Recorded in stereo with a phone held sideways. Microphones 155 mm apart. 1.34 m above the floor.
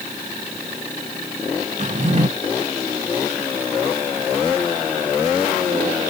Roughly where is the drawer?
Right.